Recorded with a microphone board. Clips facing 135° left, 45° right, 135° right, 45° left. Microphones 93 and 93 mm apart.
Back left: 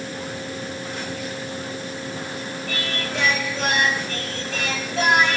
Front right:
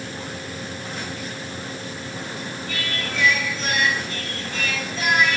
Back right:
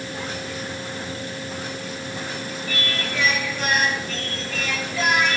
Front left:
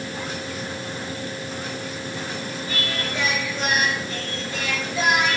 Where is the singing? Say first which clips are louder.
Back left 2 dB, back right 1 dB; 115° left, 6.5 m.